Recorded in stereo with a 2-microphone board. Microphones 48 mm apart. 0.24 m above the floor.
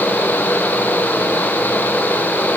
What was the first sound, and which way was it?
Only background noise.